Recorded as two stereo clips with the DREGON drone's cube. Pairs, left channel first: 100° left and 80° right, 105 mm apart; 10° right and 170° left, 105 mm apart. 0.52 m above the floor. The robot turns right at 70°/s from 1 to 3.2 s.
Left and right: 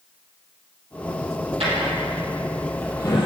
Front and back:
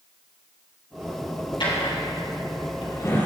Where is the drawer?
55° right, 3.5 m; by 3.3 s 60° left, 3.5 m.